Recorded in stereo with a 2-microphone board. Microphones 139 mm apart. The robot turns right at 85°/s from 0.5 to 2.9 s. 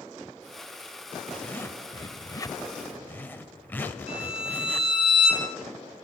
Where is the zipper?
5° left (ahead or behind), 0.8 m; by 4.9 s 15° left (ahead or behind), 0.8 m.